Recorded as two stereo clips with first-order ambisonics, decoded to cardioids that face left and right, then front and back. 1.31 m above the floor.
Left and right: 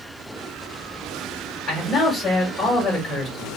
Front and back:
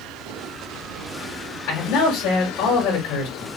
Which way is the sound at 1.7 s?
30° left.